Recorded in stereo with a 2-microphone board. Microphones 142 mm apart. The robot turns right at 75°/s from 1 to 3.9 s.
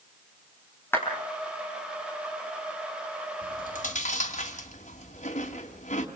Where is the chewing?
85° left, 2.5 m; by 6.1 s 55° left (ahead or behind), 2.5 m.